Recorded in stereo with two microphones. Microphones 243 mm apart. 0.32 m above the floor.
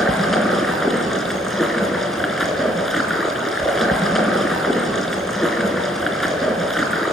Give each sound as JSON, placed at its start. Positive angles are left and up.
{"t": 0.0, "sound": "running water", "side_deg": 0, "distance_m": 3.5}